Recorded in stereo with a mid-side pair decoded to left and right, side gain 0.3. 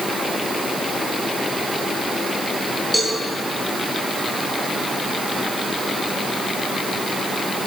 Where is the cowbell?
5° right, 7.5 m.